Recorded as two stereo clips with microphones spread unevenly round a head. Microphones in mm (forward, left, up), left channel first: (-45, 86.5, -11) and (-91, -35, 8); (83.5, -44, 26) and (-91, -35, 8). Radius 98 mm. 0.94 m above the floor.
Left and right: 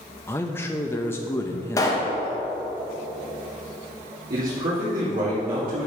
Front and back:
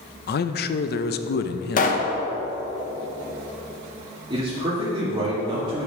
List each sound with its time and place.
0.3 s a man speaking: 5° left, 0.5 m
1.8 s a pop: 20° left, 1.0 m
4.3 s a man speaking: 120° right, 2.0 m